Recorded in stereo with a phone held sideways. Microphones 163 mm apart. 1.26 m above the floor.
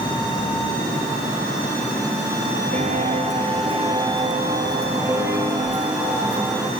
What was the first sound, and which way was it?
Footsteps, 45° right (ahead or behind).